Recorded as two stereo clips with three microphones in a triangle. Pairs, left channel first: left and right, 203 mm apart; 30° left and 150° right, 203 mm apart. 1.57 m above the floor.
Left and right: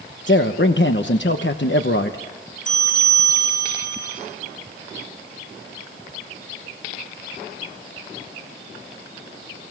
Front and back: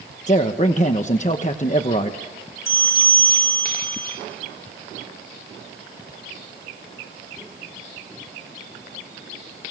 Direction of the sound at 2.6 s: 35° left.